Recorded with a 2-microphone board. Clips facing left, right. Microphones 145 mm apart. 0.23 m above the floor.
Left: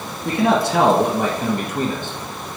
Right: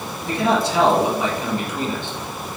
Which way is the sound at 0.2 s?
65° left (ahead or behind).